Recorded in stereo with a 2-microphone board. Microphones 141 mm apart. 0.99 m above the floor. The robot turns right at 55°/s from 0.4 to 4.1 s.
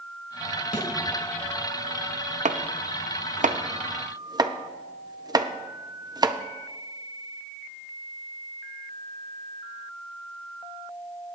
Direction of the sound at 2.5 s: 60° right (ahead or behind).